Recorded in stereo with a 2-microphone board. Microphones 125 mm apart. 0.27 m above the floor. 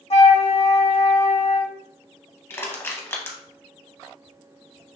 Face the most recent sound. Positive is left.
turn(degrees=20)  # may be behind; listen again after turning